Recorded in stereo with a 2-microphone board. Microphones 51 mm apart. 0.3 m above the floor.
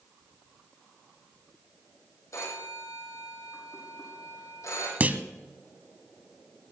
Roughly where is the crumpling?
No crumpling in this recording.